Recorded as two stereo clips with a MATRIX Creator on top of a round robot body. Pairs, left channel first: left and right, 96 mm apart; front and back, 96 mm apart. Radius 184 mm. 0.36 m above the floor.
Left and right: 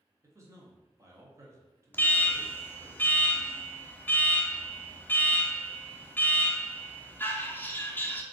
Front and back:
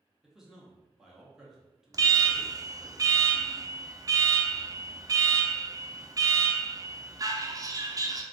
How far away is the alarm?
About 0.8 m.